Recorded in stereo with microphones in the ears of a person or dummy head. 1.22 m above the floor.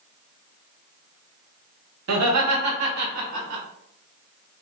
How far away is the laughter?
About 1.2 m.